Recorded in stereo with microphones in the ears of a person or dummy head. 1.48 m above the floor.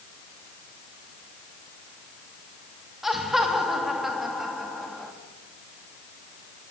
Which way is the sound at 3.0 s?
5° right (ahead or behind).